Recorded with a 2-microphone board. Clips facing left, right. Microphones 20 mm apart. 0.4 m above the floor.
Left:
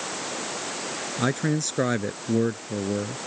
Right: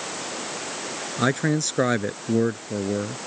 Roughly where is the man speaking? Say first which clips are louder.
Right 3 dB; centre.